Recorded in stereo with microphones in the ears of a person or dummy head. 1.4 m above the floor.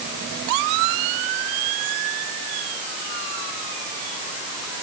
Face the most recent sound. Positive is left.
No sound to turn to.